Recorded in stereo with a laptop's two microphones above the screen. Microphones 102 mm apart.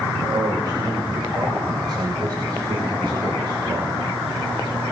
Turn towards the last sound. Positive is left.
turn(degrees=-55)  # may be behind; listen again after turning